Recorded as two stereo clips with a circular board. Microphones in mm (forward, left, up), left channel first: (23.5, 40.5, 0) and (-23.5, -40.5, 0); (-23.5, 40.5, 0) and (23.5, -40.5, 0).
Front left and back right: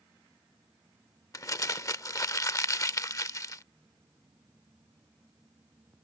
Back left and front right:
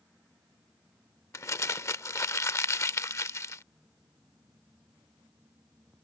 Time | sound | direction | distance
1.3 | crumpling | 85° left | ?